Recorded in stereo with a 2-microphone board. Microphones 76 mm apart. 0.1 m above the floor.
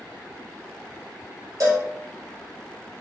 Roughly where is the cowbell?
Right.